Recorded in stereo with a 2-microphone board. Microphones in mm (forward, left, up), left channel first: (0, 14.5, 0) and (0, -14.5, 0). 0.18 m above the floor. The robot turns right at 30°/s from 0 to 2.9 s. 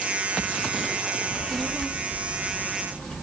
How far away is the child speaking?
About 1.6 m.